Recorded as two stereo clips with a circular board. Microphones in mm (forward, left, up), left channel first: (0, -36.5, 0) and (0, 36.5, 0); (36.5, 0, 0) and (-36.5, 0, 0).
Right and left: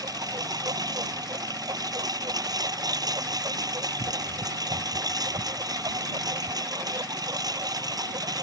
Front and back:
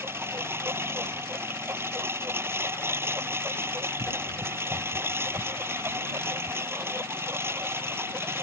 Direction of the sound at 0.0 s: 120° left.